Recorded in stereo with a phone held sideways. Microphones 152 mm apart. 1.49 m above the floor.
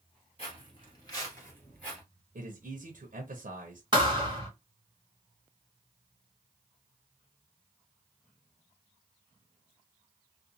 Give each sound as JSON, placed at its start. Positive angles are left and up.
{"t": 0.4, "sound": "footsteps", "side_deg": 40, "distance_m": 1.8}
{"t": 2.4, "sound": "a man speaking", "side_deg": -70, "distance_m": 0.8}
{"t": 3.9, "sound": "a thud", "side_deg": -30, "distance_m": 1.0}